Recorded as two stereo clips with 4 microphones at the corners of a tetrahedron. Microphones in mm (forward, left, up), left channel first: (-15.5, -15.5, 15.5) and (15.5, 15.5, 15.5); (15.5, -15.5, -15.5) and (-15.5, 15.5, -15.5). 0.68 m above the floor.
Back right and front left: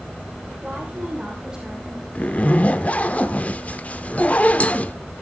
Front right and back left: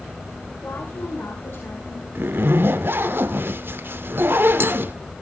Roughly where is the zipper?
Behind.